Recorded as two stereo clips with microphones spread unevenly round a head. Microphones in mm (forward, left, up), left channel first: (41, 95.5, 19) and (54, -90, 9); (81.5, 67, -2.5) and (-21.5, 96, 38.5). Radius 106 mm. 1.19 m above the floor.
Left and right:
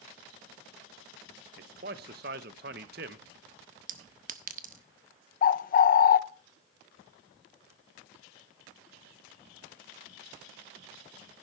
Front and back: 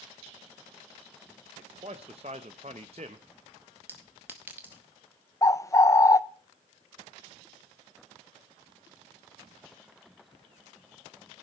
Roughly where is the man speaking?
Behind right.